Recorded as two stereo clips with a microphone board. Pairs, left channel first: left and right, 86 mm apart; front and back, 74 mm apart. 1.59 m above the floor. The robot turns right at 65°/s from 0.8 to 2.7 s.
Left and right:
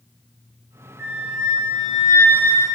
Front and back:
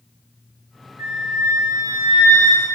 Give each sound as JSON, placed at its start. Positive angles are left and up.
{"t": 1.0, "sound": "a flute", "azimuth_deg": -155, "distance_m": 1.9}